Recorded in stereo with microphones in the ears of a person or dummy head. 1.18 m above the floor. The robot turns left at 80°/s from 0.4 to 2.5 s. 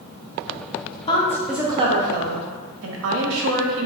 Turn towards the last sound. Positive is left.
turn(degrees=-85)